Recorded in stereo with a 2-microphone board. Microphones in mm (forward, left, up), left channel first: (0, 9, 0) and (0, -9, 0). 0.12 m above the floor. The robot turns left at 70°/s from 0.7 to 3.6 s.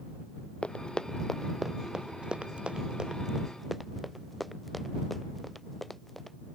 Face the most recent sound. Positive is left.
turn(degrees=15)  # may be behind; listen again after turning